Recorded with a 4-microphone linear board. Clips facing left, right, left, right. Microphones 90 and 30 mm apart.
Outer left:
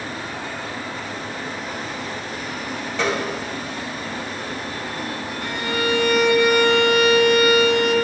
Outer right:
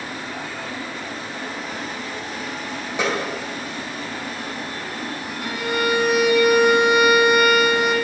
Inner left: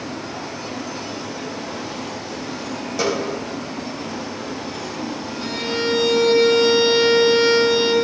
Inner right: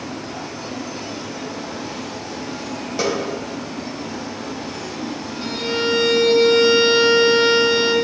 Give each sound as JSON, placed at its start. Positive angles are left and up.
{"t": 3.0, "sound": "a snare drum", "side_deg": -15, "distance_m": 2.5}
{"t": 5.4, "sound": "a violin", "side_deg": -10, "distance_m": 1.2}